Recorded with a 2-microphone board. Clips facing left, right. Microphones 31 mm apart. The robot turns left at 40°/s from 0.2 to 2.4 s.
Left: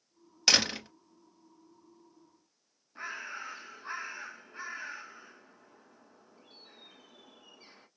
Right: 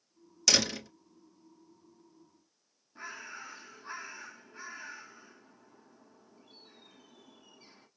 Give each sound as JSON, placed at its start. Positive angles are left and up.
{"t": 0.5, "sound": "a door slam", "side_deg": 30, "distance_m": 1.0}
{"t": 3.0, "sound": "a bird", "side_deg": 20, "distance_m": 1.0}